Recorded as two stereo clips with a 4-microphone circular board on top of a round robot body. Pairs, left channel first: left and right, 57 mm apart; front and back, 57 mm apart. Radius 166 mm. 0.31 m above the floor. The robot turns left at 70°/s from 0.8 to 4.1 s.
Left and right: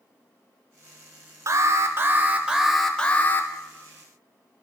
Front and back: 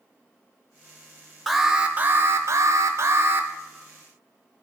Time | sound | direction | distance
1.5 | an alarm | 90° right | 0.9 m